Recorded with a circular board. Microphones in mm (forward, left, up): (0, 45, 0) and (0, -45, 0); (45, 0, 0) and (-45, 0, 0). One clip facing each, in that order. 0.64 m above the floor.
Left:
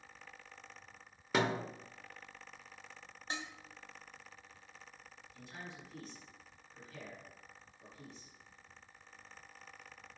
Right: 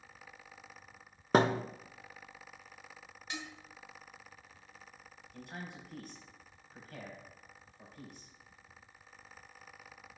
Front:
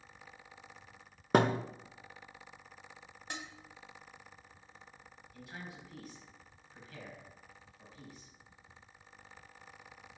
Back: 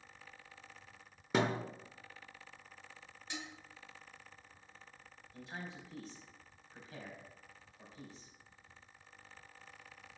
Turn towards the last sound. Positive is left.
turn(degrees=-120)